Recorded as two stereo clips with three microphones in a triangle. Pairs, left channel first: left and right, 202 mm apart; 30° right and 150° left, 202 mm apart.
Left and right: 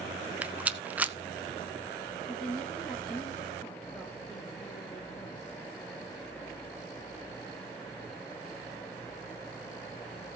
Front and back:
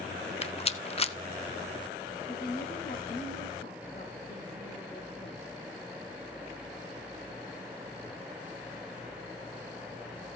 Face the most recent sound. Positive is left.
turn(degrees=20)